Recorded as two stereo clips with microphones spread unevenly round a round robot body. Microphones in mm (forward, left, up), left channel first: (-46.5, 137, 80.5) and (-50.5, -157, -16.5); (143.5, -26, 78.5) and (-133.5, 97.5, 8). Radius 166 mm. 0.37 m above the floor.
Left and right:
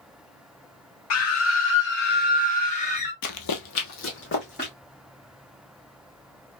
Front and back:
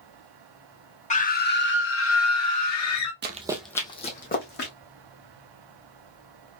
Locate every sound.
1.1 s a scream: 50° left, 1.2 m; by 3.1 s 10° left, 1.9 m
3.2 s running footsteps: 95° left, 0.7 m; by 4.7 s 30° left, 1.9 m